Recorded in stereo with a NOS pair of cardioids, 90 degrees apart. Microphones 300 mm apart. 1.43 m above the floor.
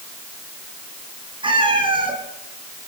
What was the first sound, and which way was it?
A cat meowing, 15° right.